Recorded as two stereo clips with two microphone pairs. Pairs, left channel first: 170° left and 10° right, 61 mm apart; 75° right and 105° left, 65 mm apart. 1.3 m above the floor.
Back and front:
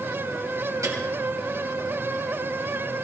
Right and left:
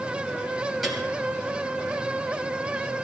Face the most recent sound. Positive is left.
turn(degrees=15)